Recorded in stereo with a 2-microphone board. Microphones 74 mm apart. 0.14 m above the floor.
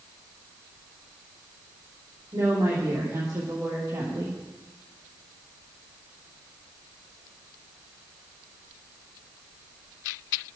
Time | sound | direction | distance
2.3 | a woman speaking | 50° right (ahead or behind) | 8 m